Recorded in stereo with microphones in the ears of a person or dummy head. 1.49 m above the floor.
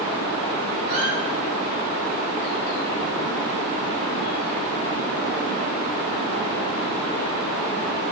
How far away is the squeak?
About 2 m.